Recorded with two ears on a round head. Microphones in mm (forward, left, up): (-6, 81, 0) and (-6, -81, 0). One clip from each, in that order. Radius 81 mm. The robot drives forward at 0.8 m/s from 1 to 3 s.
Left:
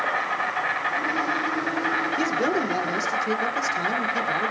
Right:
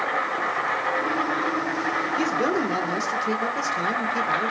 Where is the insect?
65° left (ahead or behind), 7 m; by 4.5 s 75° left (ahead or behind), 6.5 m.